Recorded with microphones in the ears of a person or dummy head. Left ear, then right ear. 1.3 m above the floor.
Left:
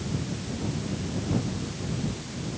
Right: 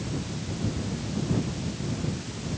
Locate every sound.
Only background noise.